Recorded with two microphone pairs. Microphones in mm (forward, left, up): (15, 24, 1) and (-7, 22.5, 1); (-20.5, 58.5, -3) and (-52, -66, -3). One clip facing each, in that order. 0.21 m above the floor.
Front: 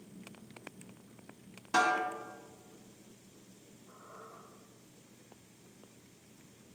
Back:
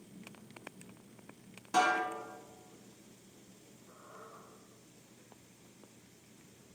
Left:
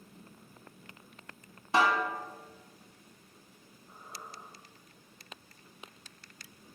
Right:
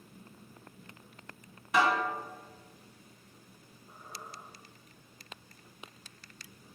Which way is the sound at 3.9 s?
80° right.